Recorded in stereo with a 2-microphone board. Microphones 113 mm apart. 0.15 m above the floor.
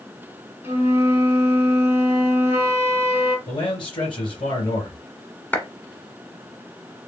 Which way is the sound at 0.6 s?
65° left (ahead or behind).